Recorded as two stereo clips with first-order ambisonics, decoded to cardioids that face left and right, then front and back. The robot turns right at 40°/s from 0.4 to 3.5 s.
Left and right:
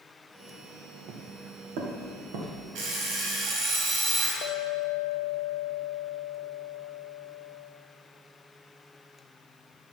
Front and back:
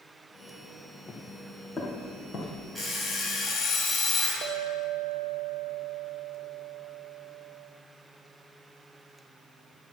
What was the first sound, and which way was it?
Footsteps, 75° right.